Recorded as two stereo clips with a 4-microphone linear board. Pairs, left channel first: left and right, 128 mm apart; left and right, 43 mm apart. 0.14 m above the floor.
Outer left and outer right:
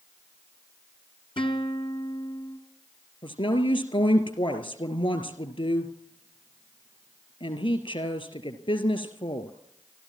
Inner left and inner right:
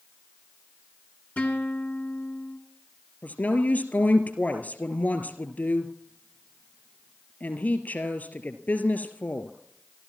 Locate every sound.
1.4 s a guitar: 40° left (ahead or behind), 1.8 m
3.2 s a woman speaking: 45° left (ahead or behind), 2.5 m